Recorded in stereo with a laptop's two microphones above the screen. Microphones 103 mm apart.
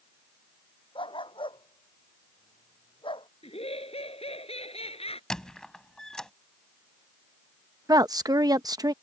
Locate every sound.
0.9 s a dog barking: 60° left (ahead or behind)
3.4 s laughter: 80° left
5.3 s a squeak: 5° left (ahead or behind)
7.9 s a woman speaking: 40° right (ahead or behind)